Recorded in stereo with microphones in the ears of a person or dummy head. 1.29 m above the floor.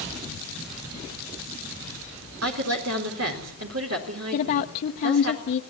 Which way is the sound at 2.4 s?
80° right.